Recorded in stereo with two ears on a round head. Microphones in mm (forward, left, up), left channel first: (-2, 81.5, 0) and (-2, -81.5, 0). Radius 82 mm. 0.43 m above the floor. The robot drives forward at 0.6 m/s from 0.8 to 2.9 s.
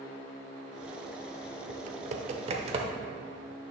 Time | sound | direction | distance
1.7 | typing on a keyboard | 40° right (ahead or behind) | 0.7 m